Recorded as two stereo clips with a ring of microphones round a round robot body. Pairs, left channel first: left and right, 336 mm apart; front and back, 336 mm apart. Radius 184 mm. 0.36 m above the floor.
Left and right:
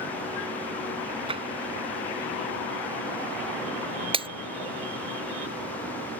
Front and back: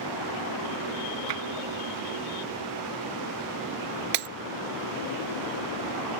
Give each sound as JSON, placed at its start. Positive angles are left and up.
{"t": 1.3, "sound": "tapping", "azimuth_deg": -165}
{"t": 4.1, "sound": "breaking glass", "azimuth_deg": -165}